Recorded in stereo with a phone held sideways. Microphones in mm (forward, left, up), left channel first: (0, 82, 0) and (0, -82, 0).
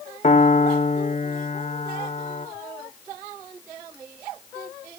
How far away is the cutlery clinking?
I don't hear cutlery clinking.